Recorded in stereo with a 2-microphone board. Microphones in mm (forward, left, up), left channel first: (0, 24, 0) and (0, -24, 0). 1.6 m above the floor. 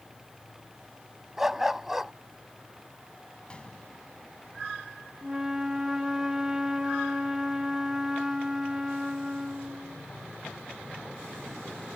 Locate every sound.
1.4 s a dog barking: 5° right (ahead or behind)
3.5 s a gunshot: 20° left (ahead or behind)
5.2 s a flute: 15° right (ahead or behind)